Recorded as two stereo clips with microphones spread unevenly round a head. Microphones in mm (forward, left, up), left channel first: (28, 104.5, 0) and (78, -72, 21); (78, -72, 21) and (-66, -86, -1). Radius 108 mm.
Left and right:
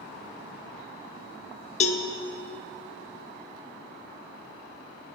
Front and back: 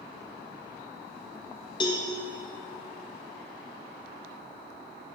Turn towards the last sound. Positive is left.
turn(degrees=55)